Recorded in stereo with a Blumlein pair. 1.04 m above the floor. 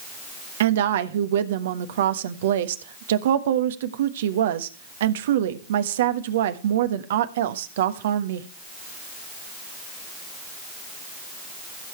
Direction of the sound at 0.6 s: 60° right.